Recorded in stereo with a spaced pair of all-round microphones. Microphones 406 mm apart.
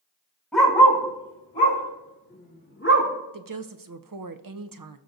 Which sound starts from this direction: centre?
A dog barking, at 0.5 s.